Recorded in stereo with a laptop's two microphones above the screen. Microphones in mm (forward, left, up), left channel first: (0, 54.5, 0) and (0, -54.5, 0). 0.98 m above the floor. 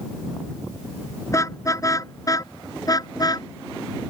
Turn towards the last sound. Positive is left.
turn(degrees=40)  # may be behind; listen again after turning